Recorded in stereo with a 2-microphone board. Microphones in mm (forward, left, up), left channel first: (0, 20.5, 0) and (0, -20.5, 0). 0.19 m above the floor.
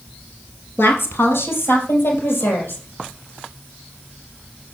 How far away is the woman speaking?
About 3.5 m.